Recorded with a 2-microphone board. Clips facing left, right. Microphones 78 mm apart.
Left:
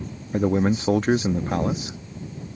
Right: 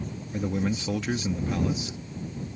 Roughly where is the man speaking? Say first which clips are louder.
Left 8 dB; left.